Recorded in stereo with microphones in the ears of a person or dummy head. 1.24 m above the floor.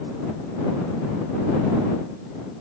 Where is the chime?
No chime in this recording.